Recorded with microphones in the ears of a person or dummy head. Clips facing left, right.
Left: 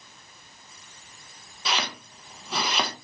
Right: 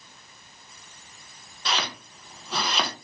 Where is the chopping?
5° left (ahead or behind), 0.6 m.